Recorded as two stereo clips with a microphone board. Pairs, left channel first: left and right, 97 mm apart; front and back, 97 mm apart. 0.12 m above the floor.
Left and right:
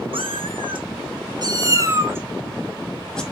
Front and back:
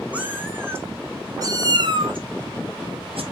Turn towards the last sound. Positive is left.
turn(degrees=170)